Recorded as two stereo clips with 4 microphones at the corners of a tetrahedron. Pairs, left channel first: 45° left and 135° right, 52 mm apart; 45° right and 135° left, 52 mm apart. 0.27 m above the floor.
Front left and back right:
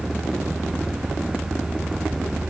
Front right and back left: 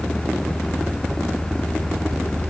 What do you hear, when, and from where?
Only background noise.